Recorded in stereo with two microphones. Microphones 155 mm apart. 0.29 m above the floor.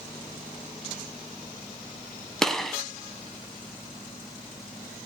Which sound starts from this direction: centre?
A gunshot, at 2.4 s.